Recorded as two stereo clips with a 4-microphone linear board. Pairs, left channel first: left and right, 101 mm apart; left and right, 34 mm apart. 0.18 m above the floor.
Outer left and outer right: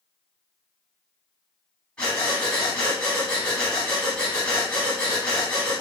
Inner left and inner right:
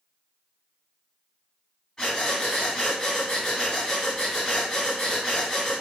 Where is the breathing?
10° left (ahead or behind), 1.1 m.